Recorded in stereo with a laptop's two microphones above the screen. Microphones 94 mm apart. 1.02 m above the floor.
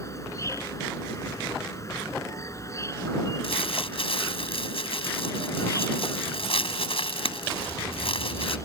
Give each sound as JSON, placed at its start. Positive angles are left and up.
{"t": 0.0, "sound": "an insect", "side_deg": 30}
{"t": 3.4, "sound": "crumpling", "side_deg": 75}